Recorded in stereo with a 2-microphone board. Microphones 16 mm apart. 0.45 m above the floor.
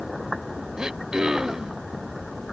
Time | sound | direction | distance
0.8 | throat clearing | 45° right (ahead or behind) | ?